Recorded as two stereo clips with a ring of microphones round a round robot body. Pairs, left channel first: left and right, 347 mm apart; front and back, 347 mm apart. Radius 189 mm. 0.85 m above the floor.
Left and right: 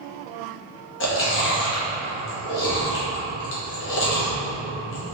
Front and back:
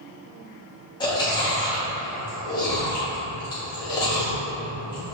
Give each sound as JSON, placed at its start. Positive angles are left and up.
{"t": 1.0, "sound": "chewing", "azimuth_deg": 70, "distance_m": 0.7}